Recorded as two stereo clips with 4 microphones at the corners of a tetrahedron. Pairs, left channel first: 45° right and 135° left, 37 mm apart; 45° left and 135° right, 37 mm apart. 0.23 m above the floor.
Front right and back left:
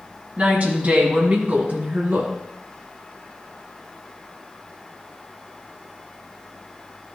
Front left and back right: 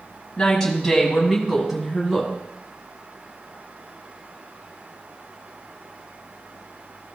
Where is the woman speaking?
115° left, 1.7 m; by 2.3 s 155° left, 2.5 m.